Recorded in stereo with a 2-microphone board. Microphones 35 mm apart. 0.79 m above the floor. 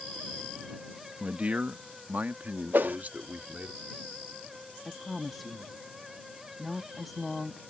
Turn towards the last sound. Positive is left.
turn(degrees=5)  # may be behind; listen again after turning